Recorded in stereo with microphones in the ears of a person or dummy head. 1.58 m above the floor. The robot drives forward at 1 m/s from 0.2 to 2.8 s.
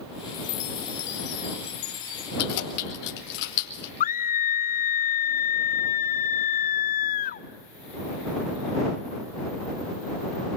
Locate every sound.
0.3 s a chime: 85° left, 2 m; by 2.3 s 50° left (ahead or behind), 3 m
2.4 s keys jangling: 50° left (ahead or behind), 4.5 m; by 3.9 s 55° left (ahead or behind), 4 m
4.0 s a scream: 55° left (ahead or behind), 0.9 m